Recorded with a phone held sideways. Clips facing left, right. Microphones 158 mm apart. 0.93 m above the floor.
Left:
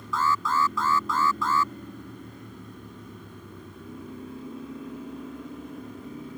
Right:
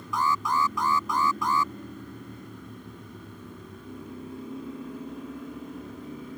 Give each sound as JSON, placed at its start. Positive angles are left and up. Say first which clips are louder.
{"t": 0.1, "sound": "an alarm", "louder": "left 1 dB", "side_deg": -15}